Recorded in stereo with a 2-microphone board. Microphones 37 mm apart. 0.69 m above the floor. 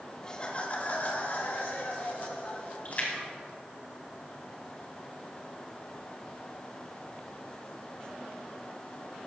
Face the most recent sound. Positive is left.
turn(degrees=45)  # may be behind; listen again after turning